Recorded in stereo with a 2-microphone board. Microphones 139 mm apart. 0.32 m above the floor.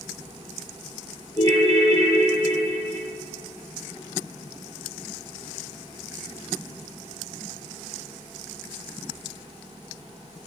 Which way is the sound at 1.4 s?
25° left (ahead or behind).